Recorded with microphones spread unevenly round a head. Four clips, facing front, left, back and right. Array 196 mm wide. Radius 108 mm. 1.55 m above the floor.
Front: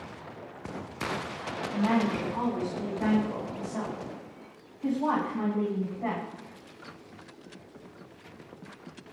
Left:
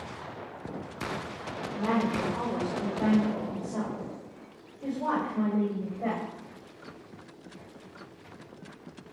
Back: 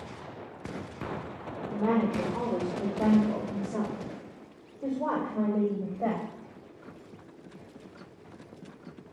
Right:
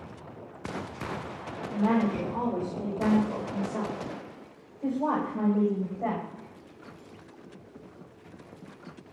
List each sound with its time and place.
1.7 s a woman speaking: 170° right, 4.5 m; by 6.2 s 175° right, 7 m